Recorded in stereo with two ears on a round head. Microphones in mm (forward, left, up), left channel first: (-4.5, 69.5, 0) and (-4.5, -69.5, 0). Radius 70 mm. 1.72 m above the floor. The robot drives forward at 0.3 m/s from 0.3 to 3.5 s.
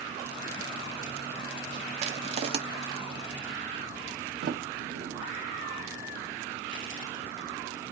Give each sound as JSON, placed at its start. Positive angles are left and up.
{"t": 2.0, "sound": "crushing", "side_deg": -45, "distance_m": 0.8}
{"t": 4.4, "sound": "a sliding door", "side_deg": -70, "distance_m": 0.8}